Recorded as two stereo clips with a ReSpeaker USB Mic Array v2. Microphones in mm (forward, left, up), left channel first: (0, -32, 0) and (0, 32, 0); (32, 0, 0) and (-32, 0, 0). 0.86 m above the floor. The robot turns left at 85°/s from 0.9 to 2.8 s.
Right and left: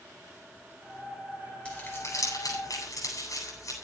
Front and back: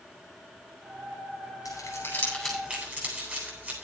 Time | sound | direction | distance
1.6 | crumpling | 20° right | 8.5 m